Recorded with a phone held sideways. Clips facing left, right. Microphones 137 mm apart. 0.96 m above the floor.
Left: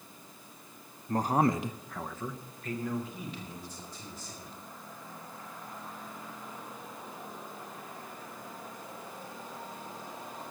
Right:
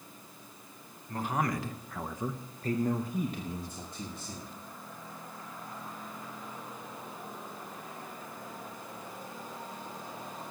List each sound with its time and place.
1.1 s a man speaking: 45° left (ahead or behind), 0.7 m; by 4.5 s 60° right (ahead or behind), 1.7 m